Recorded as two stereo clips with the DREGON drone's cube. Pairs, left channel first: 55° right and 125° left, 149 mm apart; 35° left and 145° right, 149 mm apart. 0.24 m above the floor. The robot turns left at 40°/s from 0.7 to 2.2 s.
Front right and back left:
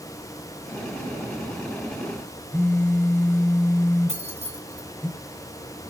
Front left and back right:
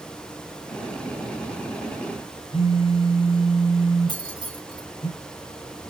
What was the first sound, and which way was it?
A phone buzzing, 15° left.